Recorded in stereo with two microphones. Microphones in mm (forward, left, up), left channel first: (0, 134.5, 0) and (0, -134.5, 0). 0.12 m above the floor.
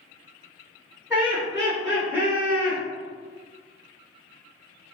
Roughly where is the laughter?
Centre.